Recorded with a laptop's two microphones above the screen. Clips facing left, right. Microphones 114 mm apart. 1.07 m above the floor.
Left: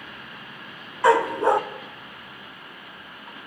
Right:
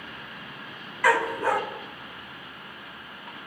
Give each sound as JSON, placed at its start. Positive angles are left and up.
{"t": 1.0, "sound": "a dog barking", "side_deg": 25, "distance_m": 0.6}